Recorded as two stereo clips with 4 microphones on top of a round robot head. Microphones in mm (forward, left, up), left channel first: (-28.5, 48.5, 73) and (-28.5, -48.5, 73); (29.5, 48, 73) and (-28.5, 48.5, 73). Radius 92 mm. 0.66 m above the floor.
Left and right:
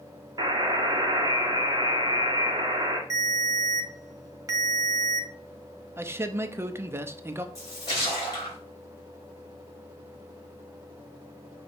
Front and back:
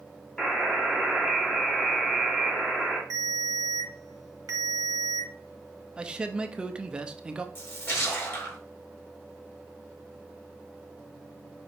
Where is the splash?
40° left, 2 m.